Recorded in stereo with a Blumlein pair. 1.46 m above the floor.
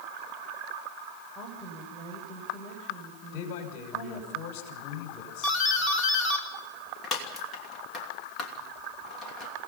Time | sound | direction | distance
1.4 | a woman speaking | straight ahead | 7.5 m
3.3 | a man speaking | 40° left | 5.5 m
5.4 | a doorbell | 20° left | 3 m